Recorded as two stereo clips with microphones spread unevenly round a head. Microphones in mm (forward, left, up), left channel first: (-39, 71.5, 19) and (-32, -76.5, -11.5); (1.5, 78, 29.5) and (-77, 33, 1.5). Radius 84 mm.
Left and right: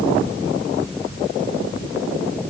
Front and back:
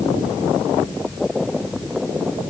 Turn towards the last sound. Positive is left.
No sound to turn to.